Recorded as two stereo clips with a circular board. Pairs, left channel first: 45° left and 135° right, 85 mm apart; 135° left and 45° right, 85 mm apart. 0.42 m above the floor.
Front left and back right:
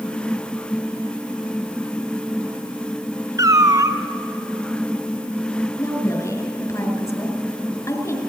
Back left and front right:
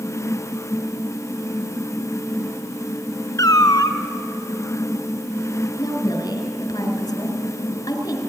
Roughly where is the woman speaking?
Left.